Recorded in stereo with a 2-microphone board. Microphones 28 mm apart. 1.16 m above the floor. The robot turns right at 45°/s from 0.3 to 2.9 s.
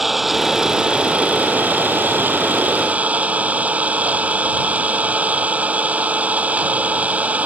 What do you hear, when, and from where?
0.0 s an engine running: 175° right; by 7.5 s 60° right